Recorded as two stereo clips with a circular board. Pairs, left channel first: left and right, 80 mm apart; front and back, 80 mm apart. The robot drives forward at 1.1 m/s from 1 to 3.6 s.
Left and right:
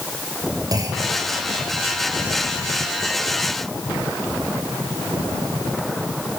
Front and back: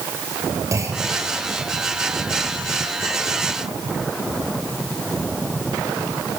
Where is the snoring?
No snoring in this recording.